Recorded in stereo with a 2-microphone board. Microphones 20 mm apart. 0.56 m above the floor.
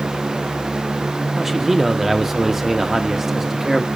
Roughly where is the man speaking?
Centre.